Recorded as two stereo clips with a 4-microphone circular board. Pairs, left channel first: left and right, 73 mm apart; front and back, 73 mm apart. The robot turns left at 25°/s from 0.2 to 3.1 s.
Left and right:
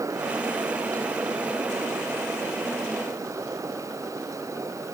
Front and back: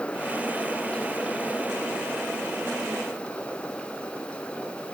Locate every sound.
Only background noise.